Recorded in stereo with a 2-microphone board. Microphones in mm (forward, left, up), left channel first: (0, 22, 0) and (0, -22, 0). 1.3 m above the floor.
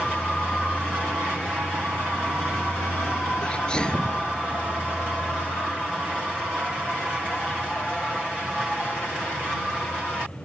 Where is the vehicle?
20° left (ahead or behind).